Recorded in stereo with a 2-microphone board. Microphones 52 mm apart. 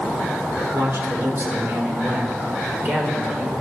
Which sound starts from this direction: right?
A man speaking, at 0.7 s.